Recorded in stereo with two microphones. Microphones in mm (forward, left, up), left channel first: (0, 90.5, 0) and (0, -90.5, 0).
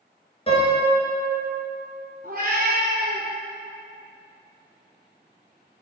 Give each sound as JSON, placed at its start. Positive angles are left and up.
{"t": 0.5, "sound": "a piano", "side_deg": 35, "distance_m": 1.0}
{"t": 2.2, "sound": "a cat meowing", "side_deg": -55, "distance_m": 0.7}